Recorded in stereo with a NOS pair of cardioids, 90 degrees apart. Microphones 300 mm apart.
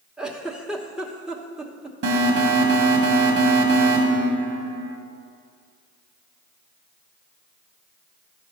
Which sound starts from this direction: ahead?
A giggle, at 0.2 s.